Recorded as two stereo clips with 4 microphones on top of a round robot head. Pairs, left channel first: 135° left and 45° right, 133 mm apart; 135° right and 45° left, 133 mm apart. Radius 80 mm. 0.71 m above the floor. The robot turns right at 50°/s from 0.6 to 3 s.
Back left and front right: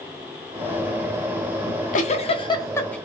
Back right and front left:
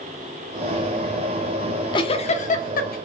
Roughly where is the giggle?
Behind left.